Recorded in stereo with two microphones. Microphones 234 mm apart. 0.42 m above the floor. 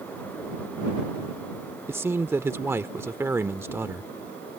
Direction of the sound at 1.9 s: 10° right (ahead or behind).